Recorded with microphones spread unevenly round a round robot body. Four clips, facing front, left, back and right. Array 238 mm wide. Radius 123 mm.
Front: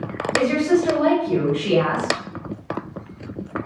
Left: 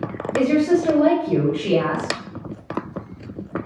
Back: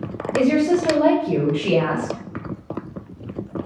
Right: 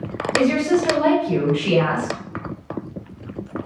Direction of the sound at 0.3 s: 145° left.